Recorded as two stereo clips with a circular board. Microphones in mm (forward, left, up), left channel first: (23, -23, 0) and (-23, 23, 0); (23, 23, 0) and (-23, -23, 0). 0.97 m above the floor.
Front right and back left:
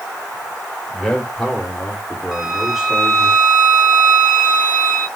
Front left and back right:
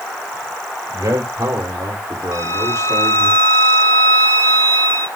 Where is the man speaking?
125° right, 3 m; by 3.3 s 150° right, 1.9 m.